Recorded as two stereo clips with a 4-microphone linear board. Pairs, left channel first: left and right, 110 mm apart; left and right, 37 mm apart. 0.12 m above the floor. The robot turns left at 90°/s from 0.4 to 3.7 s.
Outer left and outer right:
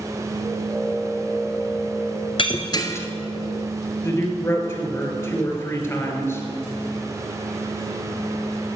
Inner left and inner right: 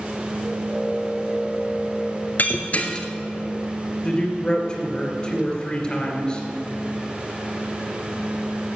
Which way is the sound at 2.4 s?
50° left (ahead or behind).